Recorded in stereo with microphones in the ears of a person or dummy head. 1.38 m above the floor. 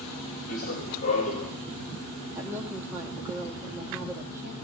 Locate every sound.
0.5 s running footsteps: 40° left (ahead or behind), 5 m; by 1.5 s 30° left (ahead or behind), 5 m
2.4 s a woman speaking: 20° right (ahead or behind), 2 m